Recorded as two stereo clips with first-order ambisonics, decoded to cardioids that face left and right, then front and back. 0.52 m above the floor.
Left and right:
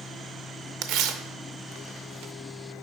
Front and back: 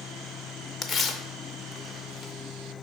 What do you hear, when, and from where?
0.8 s tearing paper: 60° right, 0.6 m